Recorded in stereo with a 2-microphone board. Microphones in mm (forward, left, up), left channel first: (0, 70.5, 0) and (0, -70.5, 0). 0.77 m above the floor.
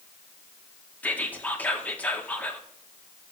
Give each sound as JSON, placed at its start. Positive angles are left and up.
{"t": 1.0, "sound": "whispering", "side_deg": 10, "distance_m": 1.2}